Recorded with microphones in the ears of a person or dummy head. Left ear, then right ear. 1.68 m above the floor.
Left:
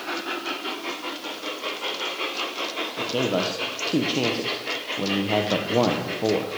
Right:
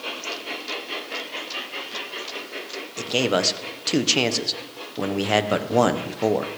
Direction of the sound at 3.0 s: 65° right (ahead or behind).